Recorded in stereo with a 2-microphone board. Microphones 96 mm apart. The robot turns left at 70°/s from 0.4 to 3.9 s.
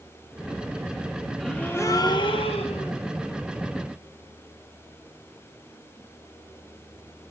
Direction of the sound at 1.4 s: Straight behind.